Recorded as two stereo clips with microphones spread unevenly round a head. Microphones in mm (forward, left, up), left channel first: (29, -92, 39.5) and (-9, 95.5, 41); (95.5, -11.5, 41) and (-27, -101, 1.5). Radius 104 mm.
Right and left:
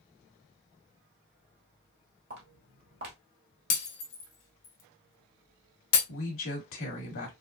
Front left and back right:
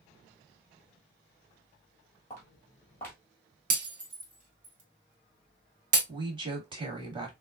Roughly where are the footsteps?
Left.